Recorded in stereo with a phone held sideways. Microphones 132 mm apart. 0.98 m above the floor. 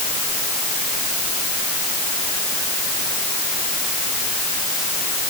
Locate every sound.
Only background noise.